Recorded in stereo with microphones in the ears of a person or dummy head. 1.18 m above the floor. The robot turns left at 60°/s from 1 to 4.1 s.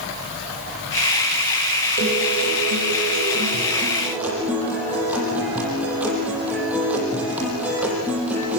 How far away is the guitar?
About 8 m.